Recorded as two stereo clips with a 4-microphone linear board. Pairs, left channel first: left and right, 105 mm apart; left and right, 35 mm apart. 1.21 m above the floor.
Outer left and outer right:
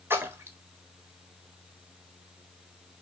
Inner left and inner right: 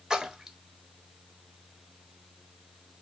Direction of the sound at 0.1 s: 20° right (ahead or behind).